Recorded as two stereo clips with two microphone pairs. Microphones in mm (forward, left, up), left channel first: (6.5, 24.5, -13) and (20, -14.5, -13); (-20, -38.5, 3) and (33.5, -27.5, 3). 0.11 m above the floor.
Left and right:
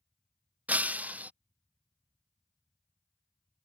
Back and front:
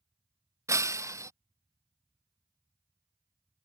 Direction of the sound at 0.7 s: 20° right.